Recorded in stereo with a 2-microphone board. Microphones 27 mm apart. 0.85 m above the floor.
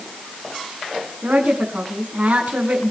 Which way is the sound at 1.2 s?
75° right (ahead or behind).